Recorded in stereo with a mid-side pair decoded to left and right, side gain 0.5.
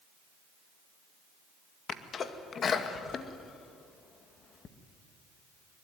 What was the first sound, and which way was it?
A sneeze, 45° left.